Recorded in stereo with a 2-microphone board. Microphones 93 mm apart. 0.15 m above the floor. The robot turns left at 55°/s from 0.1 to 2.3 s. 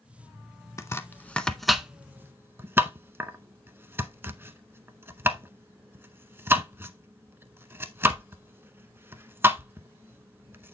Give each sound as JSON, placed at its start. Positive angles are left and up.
{"t": 0.8, "sound": "chopping", "side_deg": 30, "distance_m": 0.6}